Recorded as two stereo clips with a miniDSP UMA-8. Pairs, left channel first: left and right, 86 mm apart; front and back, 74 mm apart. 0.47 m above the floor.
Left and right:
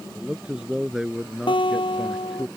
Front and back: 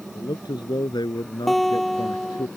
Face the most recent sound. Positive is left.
turn(degrees=85)